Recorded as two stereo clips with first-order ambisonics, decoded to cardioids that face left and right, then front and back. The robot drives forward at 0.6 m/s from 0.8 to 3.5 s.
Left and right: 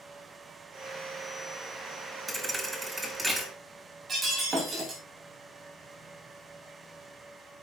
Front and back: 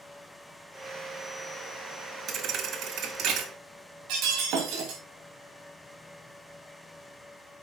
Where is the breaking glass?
155° right, 5 m.